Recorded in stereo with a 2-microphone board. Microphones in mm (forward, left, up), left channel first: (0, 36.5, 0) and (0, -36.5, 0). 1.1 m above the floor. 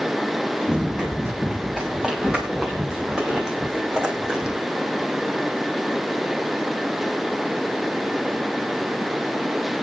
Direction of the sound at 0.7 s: 10° right (ahead or behind).